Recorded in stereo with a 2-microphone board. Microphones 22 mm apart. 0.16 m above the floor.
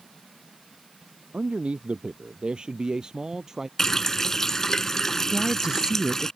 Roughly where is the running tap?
Left.